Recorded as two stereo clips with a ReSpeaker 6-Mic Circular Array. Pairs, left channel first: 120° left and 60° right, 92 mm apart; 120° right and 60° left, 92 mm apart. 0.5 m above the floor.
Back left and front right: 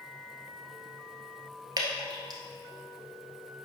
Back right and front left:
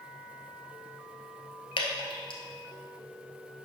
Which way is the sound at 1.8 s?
100° right.